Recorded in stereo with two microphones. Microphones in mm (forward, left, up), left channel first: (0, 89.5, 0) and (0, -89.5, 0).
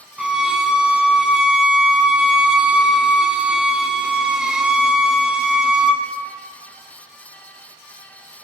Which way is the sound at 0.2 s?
5° right (ahead or behind).